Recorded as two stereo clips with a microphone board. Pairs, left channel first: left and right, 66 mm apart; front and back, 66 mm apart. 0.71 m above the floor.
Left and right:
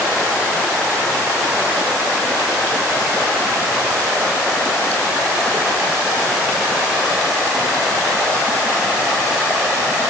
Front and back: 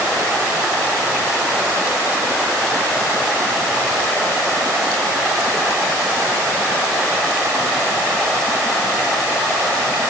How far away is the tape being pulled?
No tape being pulled in this recording.